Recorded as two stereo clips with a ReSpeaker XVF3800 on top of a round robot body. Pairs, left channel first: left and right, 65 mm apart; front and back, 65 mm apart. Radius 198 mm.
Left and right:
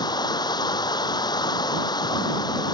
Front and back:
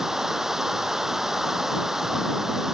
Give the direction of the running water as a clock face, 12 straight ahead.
9 o'clock.